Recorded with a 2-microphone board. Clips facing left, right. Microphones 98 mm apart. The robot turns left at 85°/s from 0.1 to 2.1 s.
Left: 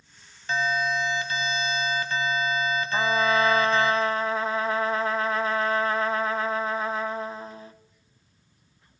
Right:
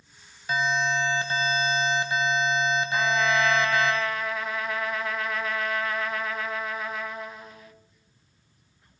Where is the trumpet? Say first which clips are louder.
Left 3 dB; 35° left (ahead or behind), 0.5 m.